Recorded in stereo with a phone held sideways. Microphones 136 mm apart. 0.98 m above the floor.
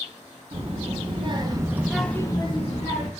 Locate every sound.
0.5 s a child speaking: 55° right (ahead or behind), 1.1 m; by 3.1 s 65° left (ahead or behind), 0.8 m